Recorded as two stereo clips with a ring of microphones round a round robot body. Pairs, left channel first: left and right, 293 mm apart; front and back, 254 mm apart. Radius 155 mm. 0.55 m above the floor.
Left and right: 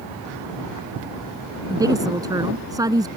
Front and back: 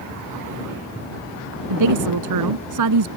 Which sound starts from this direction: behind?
A woman speaking, at 1.7 s.